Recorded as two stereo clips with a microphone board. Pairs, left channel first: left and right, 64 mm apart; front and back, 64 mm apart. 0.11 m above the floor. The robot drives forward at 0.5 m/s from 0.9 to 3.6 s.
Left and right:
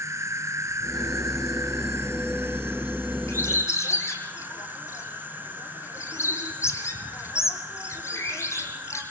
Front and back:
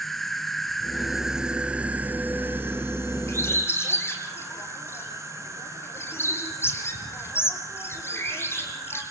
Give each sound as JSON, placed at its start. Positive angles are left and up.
{"t": 0.0, "sound": "an insect", "azimuth_deg": -85, "distance_m": 1.1}
{"t": 3.3, "sound": "a bird", "azimuth_deg": 50, "distance_m": 3.0}